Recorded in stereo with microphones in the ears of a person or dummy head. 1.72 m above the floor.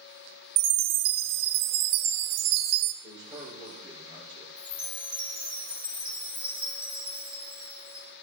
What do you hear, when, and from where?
0.6 s a chime: 60° right (ahead or behind), 0.9 m
3.0 s a man speaking: 25° right (ahead or behind), 5.5 m
4.6 s a chime: 5° right (ahead or behind), 3 m